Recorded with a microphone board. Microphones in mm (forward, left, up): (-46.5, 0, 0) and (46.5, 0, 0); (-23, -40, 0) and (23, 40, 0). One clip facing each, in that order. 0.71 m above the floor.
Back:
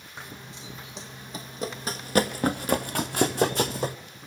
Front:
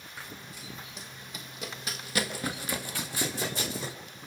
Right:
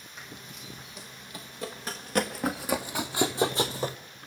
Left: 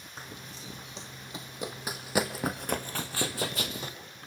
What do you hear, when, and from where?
0.2 s running footsteps: 115° left, 2 m; by 4.0 s 160° right, 1.3 m